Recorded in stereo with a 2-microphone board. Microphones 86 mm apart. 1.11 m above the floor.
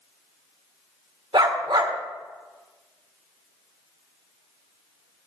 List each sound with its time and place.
1.3 s a dog barking: 70° right (ahead or behind), 1.4 m